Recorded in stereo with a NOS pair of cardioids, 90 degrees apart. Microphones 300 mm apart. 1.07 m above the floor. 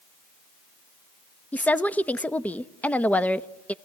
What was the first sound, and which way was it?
A woman speaking, 5° left.